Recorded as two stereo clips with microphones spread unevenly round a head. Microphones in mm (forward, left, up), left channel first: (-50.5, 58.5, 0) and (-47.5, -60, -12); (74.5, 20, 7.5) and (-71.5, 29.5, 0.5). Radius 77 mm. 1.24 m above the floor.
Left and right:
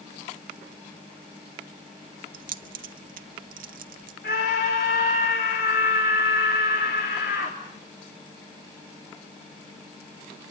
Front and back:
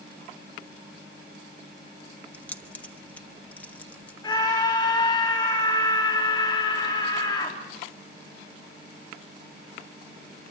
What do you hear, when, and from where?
2.3 s keys jangling: 85° right, 1.1 m
4.2 s a scream: 55° left, 3 m